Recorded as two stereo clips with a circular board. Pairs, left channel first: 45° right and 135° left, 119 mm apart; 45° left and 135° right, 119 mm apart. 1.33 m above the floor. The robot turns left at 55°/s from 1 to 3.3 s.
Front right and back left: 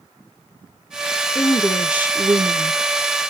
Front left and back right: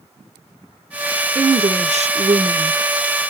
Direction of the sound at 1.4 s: 115° right.